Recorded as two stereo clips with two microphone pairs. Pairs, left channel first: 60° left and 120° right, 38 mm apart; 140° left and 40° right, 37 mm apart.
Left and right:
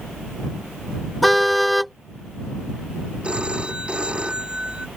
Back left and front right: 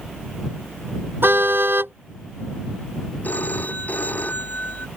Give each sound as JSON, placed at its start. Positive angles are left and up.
{"t": 1.2, "sound": "a car horn", "azimuth_deg": -25}
{"t": 3.2, "sound": "a phone ringing", "azimuth_deg": 180}